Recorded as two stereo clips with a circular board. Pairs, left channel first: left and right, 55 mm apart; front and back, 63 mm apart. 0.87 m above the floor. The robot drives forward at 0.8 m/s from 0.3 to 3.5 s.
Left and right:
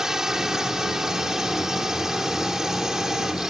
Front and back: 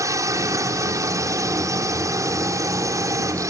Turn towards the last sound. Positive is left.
turn(degrees=-170)